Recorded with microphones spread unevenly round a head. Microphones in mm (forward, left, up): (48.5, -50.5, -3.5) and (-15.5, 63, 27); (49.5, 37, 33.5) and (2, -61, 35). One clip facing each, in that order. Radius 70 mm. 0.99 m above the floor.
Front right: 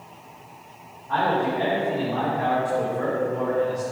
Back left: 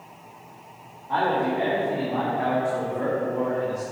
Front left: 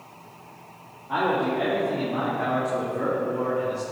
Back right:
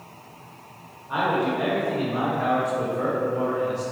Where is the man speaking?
50° left, 3 m.